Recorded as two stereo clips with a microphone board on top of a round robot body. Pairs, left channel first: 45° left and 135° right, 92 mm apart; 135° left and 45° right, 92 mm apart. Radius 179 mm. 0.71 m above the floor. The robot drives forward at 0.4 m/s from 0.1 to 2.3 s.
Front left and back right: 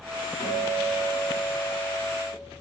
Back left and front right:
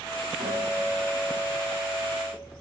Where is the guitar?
130° right, 4 m; by 2.4 s 140° right, 4.5 m.